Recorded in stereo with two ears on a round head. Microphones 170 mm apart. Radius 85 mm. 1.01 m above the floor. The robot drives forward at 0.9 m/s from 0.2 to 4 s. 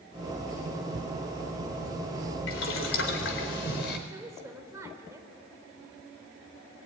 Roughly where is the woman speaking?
Centre.